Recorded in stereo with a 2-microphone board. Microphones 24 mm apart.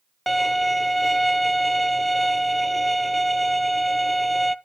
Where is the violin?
5° left (ahead or behind), 0.5 m.